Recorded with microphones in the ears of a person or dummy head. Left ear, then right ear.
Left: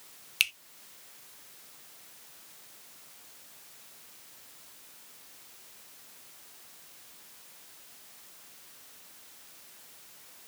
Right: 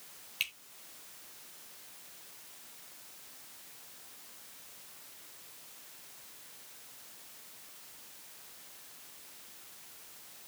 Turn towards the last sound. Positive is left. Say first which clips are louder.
# left 8 dB
turn(degrees=25)  # may be behind; listen again after turning